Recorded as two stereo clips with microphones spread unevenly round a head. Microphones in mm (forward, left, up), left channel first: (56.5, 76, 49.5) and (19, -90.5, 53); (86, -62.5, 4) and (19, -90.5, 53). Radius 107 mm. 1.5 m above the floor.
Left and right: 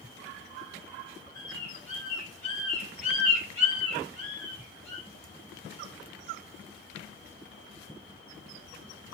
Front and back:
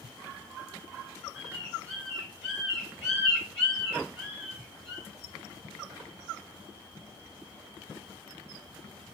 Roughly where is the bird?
Behind.